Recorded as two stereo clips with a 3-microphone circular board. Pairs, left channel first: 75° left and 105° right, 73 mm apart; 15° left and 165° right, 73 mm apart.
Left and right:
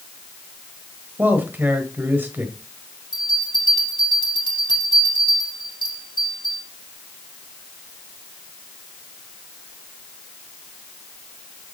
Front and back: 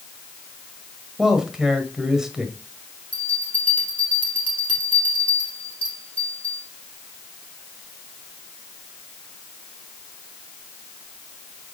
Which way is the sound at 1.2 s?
90° right.